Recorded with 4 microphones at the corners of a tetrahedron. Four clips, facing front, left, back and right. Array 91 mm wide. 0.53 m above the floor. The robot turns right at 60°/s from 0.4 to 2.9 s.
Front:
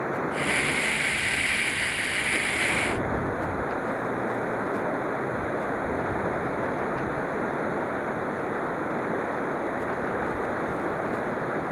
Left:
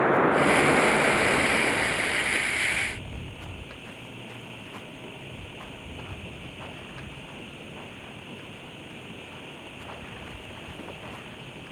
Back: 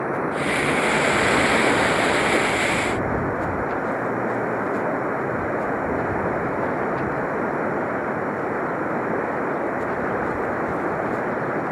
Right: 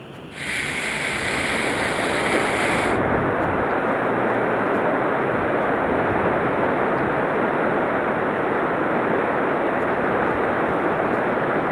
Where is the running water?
110° left; by 11.7 s 100° right.